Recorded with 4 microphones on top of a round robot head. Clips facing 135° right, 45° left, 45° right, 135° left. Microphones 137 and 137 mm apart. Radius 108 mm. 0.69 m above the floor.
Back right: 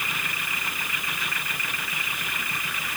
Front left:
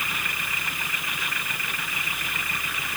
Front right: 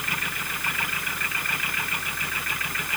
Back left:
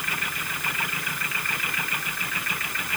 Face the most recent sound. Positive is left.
No sound to turn to.